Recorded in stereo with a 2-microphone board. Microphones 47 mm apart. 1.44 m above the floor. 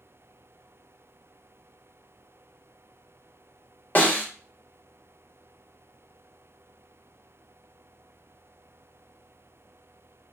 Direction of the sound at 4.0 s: 35° left (ahead or behind).